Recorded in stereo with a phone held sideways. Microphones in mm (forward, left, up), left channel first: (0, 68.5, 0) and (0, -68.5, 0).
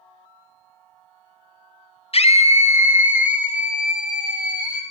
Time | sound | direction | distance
2.1 | a scream | 45° left (ahead or behind) | 0.7 m